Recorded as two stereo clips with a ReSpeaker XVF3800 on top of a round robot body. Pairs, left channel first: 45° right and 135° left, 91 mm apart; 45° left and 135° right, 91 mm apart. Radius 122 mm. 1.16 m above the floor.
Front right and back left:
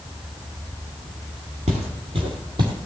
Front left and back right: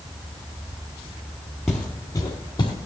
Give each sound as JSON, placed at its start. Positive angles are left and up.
{"t": 1.7, "sound": "footsteps", "azimuth_deg": 130, "distance_m": 1.3}